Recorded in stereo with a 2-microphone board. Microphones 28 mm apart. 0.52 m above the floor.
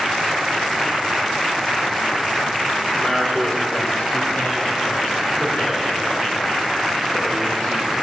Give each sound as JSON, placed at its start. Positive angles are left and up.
{"t": 2.9, "sound": "a man speaking", "side_deg": 25, "distance_m": 1.8}